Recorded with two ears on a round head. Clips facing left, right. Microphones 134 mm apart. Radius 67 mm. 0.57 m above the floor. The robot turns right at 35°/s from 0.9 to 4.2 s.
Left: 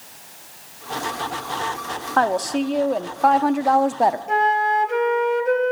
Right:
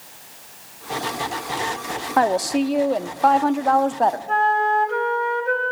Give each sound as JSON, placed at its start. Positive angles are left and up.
{"t": 2.2, "sound": "a woman speaking", "side_deg": -15, "distance_m": 0.6}
{"t": 4.3, "sound": "a flute", "side_deg": 20, "distance_m": 1.3}